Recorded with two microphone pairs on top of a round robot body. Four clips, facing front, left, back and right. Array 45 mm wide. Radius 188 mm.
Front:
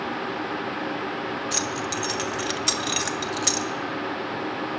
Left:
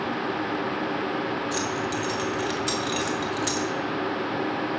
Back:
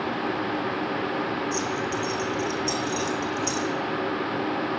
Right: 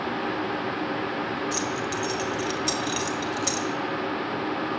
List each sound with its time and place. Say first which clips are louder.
1.5 s keys jangling: left 1 dB, back 1 dB; straight ahead, 1.9 m